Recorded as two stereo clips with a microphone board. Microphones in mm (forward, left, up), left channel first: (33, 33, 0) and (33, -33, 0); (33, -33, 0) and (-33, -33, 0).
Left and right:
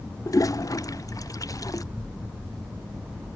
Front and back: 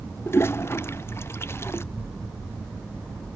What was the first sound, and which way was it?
A toilet flushing, 55° left.